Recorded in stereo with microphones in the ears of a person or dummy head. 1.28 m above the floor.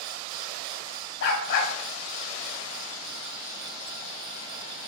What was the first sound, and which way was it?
A dog barking, 60° left (ahead or behind).